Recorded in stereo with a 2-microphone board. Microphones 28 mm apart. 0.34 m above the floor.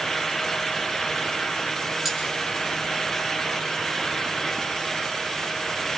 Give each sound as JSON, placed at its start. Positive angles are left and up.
{"t": 2.0, "sound": "cutlery clinking", "side_deg": -10, "distance_m": 5.0}